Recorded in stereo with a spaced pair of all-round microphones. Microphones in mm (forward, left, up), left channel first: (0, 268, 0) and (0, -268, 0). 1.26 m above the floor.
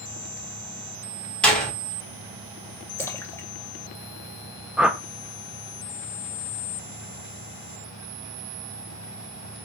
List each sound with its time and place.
1.4 s a door slam: centre (ahead or behind), 5 m
3.0 s a splash: 5° left (ahead or behind), 2 m
4.8 s a whoosh: centre (ahead or behind), 0.9 m